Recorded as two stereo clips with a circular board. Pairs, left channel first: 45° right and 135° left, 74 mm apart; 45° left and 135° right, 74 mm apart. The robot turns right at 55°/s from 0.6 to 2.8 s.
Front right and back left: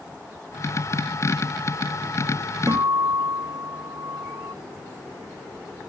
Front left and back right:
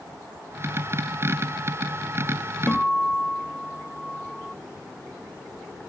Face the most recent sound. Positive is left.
turn(degrees=125)